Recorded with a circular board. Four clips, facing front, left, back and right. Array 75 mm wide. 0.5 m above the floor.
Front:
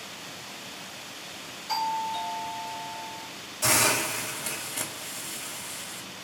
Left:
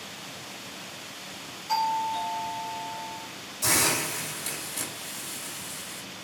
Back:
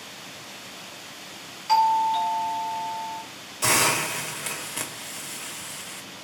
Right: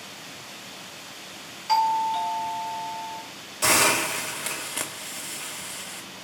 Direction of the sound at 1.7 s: 140° right.